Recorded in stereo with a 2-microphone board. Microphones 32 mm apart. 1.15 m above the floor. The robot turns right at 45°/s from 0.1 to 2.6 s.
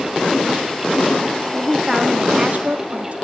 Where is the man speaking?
Straight behind, 1.6 m; by 3.1 s 135° right, 1.6 m.